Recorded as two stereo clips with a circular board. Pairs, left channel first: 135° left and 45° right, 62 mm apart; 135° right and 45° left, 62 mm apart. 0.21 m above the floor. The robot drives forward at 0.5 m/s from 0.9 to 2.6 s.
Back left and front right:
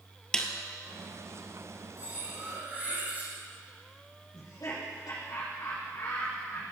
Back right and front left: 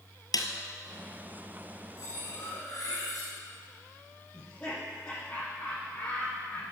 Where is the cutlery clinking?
105° right, 6 m.